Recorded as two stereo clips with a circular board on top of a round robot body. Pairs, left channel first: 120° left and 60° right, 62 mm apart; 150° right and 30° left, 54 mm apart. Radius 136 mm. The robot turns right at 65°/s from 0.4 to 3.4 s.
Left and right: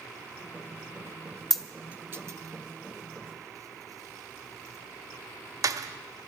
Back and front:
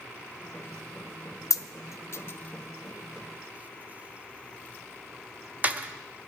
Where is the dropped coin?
155° right, 0.7 m; by 6.3 s 30° right, 0.7 m.